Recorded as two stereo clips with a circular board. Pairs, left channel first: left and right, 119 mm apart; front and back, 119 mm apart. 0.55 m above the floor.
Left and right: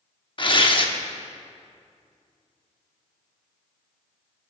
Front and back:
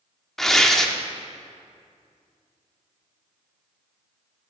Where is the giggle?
No giggle in this recording.